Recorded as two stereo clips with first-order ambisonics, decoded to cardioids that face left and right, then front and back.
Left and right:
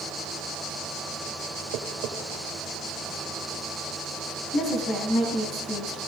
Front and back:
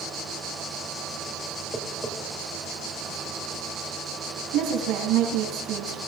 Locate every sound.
1.7 s tapping: 100° right, 1.8 m
4.5 s a woman speaking: 155° left, 3.5 m